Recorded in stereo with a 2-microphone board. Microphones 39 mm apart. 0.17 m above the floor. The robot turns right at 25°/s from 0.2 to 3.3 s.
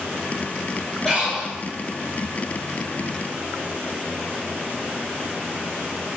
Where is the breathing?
20° left (ahead or behind), 3 m; by 1.5 s 5° left (ahead or behind), 3 m.